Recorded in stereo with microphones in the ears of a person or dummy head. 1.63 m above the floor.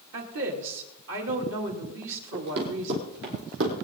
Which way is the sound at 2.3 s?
55° right (ahead or behind).